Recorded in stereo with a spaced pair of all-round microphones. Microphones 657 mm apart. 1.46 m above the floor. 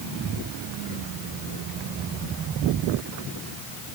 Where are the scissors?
No scissors in this recording.